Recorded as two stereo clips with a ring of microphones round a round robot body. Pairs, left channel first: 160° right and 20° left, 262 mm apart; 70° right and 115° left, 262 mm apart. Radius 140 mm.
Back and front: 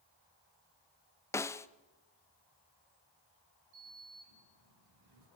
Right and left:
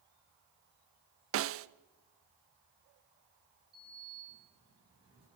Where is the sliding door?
40° left, 8 m.